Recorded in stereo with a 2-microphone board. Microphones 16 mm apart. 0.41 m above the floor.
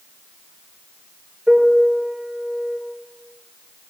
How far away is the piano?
About 9 m.